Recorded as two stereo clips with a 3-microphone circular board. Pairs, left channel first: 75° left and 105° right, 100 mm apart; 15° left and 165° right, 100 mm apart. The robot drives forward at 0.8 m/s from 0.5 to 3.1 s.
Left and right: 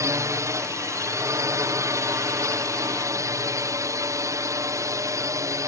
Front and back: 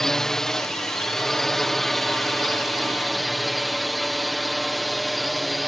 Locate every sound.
0.0 s a drone: 70° right; by 5.7 s 75° right